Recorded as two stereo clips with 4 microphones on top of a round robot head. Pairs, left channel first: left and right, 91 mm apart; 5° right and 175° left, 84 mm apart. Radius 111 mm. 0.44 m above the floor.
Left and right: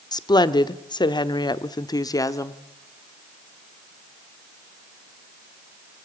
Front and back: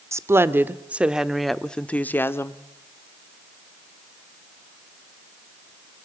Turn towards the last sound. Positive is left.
turn(degrees=40)